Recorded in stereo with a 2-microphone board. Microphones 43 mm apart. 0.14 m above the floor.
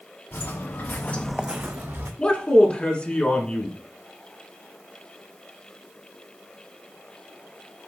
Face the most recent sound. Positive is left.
turn(degrees=25)  # may be behind; listen again after turning